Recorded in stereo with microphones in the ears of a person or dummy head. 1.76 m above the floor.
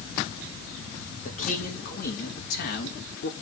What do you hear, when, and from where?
1.2 s a man speaking: 45° left (ahead or behind), 2.5 m; by 3.3 s 70° left (ahead or behind), 3 m